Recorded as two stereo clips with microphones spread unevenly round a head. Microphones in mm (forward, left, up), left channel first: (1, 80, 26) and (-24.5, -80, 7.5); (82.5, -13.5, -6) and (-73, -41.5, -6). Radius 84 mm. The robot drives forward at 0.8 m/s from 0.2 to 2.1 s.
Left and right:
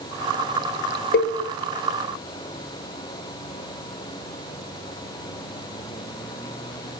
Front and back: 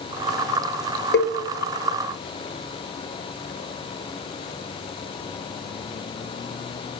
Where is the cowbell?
45° left, 0.6 m; by 1.3 s 60° left, 0.5 m.